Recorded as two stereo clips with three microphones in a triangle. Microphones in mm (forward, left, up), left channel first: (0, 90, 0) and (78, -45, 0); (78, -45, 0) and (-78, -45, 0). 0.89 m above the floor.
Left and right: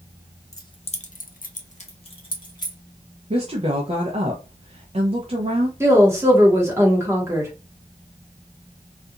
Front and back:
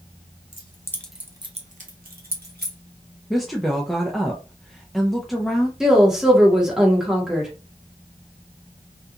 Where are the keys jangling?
55° left, 0.8 m; by 2.8 s straight behind, 1.3 m.